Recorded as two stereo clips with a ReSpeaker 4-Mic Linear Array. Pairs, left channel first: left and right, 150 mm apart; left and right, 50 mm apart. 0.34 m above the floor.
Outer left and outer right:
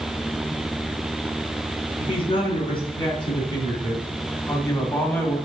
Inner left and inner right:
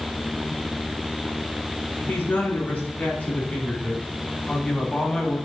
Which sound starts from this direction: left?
A man speaking, at 2.0 s.